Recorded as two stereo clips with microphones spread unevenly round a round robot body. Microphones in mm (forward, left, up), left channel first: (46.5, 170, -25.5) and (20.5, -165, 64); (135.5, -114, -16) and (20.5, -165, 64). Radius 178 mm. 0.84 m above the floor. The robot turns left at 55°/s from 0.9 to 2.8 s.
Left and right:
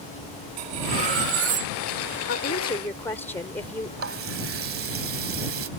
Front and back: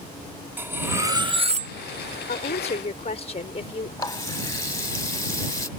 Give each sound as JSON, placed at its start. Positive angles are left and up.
{"t": 0.6, "sound": "cutlery clinking", "azimuth_deg": -75}
{"t": 2.3, "sound": "a woman speaking", "azimuth_deg": 35}
{"t": 4.0, "sound": "a running tap", "azimuth_deg": -45}